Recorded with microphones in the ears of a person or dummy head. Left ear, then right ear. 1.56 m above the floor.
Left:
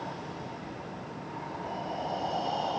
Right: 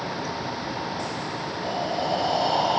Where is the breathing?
60° right (ahead or behind), 2.0 m.